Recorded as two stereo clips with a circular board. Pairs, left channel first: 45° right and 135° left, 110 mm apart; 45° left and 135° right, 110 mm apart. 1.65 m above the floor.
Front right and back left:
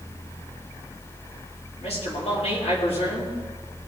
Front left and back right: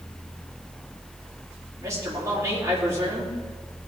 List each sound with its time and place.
1.8 s a man speaking: 70° right, 4.5 m